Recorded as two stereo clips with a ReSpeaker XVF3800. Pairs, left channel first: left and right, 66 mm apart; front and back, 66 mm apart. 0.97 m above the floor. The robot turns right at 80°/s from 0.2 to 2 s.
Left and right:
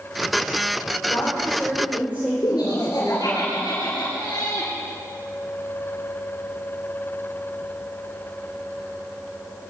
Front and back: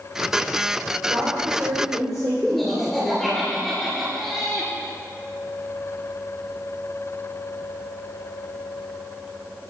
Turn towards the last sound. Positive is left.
turn(degrees=95)